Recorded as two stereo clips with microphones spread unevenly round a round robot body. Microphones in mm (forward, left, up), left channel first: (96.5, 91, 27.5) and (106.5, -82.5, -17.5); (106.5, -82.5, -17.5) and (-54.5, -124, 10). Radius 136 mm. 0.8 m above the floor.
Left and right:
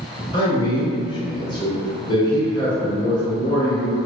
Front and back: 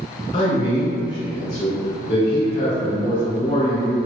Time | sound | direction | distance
0.3 | a man speaking | 15° left | 1.1 m